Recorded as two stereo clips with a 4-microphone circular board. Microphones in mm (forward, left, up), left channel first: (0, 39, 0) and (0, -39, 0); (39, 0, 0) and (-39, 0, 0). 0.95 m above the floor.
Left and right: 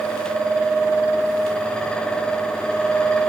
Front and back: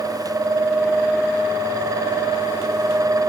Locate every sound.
Only background noise.